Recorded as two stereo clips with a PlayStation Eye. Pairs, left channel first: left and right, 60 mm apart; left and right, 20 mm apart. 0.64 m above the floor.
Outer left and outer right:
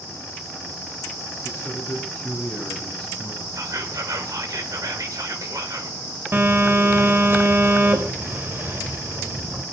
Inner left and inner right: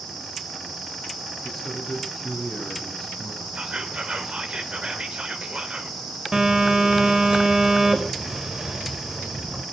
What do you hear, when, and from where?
1.4 s a man speaking: 20° left (ahead or behind), 7 m; by 3.5 s centre (ahead or behind), 7.5 m
3.5 s whispering: 70° right (ahead or behind), 2.5 m
6.3 s a phone buzzing: 40° right (ahead or behind), 3 m